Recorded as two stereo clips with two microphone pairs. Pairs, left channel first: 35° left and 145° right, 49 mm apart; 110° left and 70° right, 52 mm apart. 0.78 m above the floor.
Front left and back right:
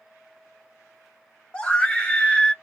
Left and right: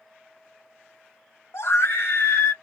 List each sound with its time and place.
1.5 s a scream: 95° left, 0.8 m